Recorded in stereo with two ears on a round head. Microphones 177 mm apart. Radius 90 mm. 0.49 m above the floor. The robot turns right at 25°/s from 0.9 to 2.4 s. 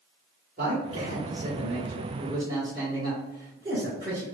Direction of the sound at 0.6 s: 70° right.